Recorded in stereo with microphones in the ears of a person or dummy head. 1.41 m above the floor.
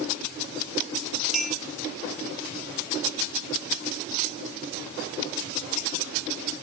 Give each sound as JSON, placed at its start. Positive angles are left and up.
{"t": 1.3, "sound": "a clink", "side_deg": 0, "distance_m": 1.3}